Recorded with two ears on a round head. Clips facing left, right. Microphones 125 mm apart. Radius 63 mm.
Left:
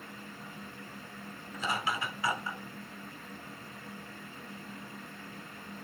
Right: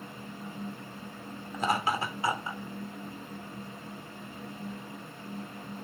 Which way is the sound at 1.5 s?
45° right (ahead or behind).